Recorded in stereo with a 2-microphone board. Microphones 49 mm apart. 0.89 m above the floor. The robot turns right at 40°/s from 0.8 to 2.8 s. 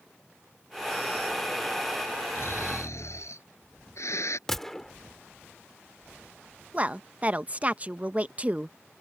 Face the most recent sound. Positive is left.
turn(degrees=-30)  # may be behind; listen again after turning